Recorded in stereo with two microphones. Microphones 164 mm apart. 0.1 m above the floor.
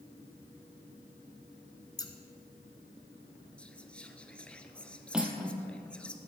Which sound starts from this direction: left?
Scissors, at 2.0 s.